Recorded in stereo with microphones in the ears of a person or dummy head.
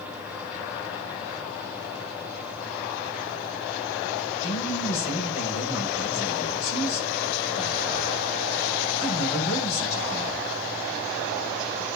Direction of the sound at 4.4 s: 40° left (ahead or behind).